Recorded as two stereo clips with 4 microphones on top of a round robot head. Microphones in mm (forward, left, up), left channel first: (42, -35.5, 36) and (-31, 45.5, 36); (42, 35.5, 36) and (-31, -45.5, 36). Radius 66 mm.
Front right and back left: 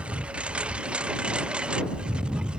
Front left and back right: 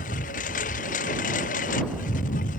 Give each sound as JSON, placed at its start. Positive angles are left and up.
{"t": 0.0, "sound": "a lawn mower", "azimuth_deg": 50}